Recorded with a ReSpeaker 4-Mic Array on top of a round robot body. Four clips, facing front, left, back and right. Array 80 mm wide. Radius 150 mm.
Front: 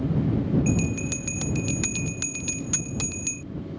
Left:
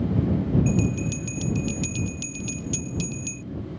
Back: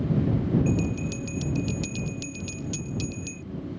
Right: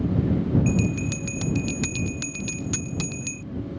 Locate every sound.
0.7 s a bell: 35° right